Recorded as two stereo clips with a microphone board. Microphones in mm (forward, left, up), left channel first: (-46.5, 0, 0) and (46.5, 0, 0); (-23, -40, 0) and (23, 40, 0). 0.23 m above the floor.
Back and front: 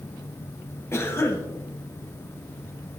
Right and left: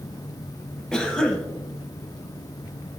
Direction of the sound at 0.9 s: 165° left.